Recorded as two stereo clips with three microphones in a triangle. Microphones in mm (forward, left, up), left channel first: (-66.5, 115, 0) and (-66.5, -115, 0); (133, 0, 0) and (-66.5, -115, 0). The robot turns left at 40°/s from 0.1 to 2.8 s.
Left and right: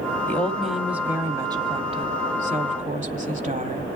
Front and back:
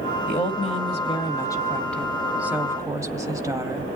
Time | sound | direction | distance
0.3 | a woman speaking | 15° left | 1.2 m